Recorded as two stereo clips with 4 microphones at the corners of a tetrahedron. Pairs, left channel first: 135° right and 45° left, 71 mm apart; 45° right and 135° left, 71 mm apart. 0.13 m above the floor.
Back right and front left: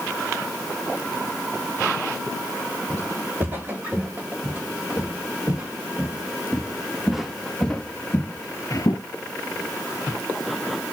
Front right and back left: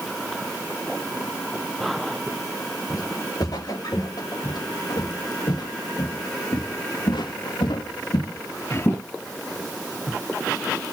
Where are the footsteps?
15° right, 4 m; by 9.0 s 110° right, 0.9 m.